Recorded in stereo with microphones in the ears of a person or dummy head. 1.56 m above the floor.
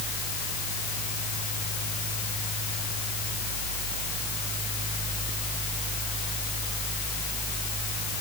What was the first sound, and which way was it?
Only background noise.